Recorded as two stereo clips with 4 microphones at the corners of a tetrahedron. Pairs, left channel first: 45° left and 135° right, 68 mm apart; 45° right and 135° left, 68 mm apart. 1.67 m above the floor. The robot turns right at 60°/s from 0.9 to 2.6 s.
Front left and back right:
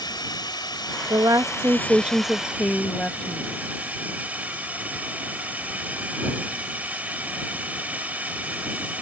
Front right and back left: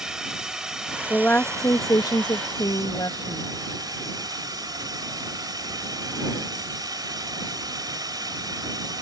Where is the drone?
55° left; by 9.0 s 155° left.